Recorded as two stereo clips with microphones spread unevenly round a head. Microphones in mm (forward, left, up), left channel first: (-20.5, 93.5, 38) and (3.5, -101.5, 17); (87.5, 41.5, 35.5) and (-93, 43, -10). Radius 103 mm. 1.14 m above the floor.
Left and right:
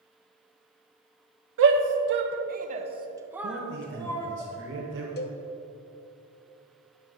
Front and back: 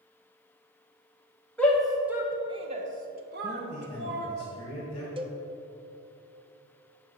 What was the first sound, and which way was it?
A shout, 90° right.